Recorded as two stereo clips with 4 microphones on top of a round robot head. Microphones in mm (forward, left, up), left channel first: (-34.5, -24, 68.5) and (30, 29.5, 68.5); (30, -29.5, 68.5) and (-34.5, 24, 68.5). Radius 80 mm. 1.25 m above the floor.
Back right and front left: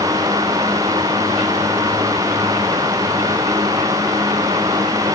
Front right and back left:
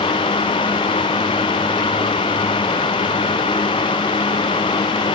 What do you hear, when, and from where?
Only background noise.